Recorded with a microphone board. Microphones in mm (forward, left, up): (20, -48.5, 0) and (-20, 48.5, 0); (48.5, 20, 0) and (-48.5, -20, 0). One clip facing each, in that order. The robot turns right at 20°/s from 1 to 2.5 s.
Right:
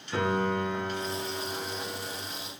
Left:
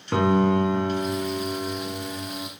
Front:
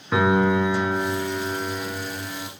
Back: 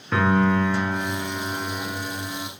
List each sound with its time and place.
0.1 s a piano: 100° left, 1.8 m; by 2.5 s 130° left, 1.8 m